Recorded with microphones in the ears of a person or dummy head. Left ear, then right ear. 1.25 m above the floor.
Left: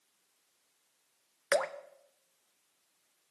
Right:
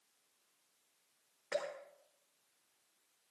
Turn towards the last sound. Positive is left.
turn(degrees=55)  # may be behind; listen again after turning